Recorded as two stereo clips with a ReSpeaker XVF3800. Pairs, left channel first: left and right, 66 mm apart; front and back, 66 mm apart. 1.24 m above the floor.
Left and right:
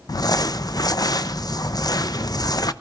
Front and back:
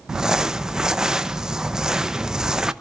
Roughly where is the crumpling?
Left.